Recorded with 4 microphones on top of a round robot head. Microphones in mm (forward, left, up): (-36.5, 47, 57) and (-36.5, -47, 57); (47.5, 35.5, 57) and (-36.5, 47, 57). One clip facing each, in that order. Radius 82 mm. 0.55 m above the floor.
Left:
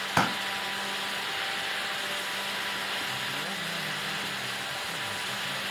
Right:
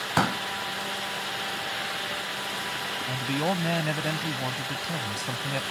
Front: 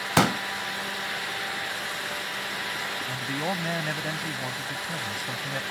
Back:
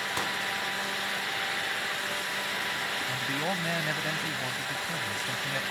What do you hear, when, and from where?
0.2 s a pop: 5° right
3.1 s a man speaking: 90° right